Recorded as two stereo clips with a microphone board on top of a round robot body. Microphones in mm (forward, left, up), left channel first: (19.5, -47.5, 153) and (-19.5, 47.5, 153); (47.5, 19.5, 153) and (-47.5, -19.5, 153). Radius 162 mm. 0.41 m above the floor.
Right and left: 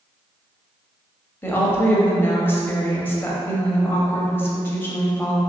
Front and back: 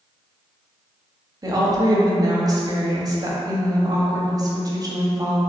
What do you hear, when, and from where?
1.4 s a woman speaking: 125° right, 1.1 m